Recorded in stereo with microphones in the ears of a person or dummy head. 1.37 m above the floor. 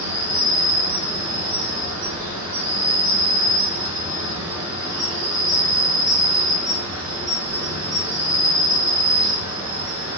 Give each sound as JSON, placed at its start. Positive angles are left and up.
{"t": 0.0, "sound": "an insect", "side_deg": -10, "distance_m": 1.6}